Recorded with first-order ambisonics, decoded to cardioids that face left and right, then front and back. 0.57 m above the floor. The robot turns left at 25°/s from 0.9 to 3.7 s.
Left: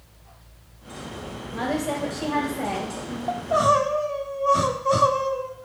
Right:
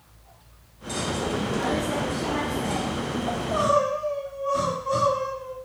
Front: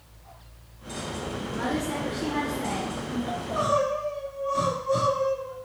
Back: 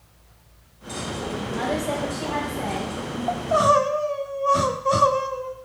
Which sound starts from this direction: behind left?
A woman speaking, at 1.5 s.